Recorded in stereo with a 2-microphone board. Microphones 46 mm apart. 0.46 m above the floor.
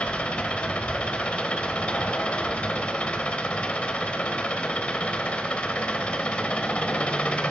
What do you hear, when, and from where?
0.0 s an engine running: 25° left (ahead or behind), 0.8 m